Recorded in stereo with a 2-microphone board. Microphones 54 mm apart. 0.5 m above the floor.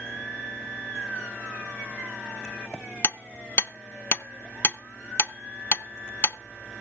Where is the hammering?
45° left (ahead or behind), 0.7 m.